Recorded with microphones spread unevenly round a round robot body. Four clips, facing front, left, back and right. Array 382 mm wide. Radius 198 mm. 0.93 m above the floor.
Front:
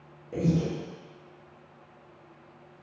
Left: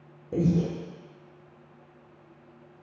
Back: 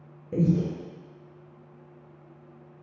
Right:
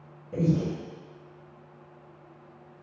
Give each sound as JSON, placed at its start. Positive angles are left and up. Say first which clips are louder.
{"t": 0.3, "sound": "breathing", "louder": "left 1 dB, back 2 dB", "azimuth_deg": 140, "distance_m": 0.7}